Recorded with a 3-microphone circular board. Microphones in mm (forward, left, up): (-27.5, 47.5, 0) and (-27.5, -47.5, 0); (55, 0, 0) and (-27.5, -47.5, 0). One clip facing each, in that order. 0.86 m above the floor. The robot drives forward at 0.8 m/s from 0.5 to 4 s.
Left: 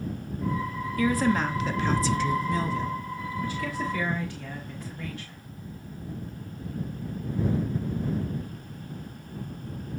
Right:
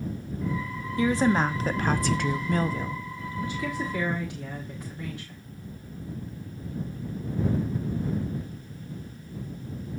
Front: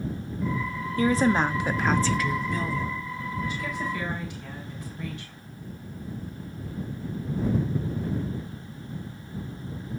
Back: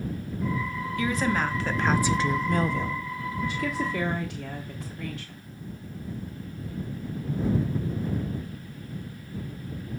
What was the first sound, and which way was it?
A woman speaking, 25° right.